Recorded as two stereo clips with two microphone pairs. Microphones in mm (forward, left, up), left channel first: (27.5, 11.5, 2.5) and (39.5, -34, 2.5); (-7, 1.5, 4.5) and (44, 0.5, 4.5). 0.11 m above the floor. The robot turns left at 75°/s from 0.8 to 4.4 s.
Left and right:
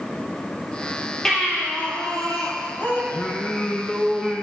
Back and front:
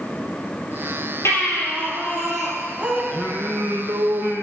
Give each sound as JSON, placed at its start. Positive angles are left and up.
{"t": 1.2, "sound": "a baby crying", "azimuth_deg": 180, "distance_m": 2.5}
{"t": 3.1, "sound": "singing", "azimuth_deg": 80, "distance_m": 0.8}